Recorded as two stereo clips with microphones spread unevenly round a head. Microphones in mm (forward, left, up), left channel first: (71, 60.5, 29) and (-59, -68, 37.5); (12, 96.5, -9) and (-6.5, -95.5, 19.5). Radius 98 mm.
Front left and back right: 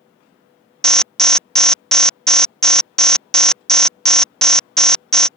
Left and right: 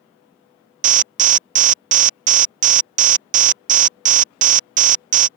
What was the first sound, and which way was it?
An alarm, 40° right.